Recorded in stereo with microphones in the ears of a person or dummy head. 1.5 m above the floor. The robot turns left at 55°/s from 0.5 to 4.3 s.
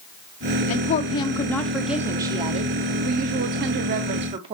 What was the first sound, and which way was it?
A woman speaking, 55° left.